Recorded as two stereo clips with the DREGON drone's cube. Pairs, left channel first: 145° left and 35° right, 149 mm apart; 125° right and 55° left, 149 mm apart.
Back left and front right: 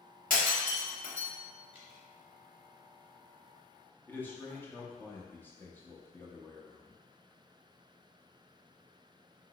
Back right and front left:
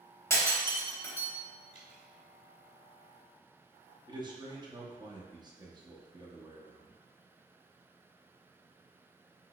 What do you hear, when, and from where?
0.3 s breaking glass: 165° left, 1.0 m
1.7 s dripping: 115° right, 0.8 m
4.1 s a man speaking: 80° left, 0.6 m